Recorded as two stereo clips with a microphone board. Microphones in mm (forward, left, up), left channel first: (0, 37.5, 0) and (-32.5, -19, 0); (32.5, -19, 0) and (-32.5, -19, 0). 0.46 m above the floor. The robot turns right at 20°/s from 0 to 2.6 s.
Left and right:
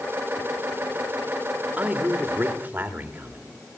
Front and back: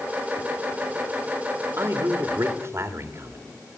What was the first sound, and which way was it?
A man speaking, 175° left.